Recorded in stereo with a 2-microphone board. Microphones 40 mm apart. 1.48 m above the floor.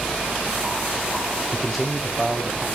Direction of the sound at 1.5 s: 5° right (ahead or behind).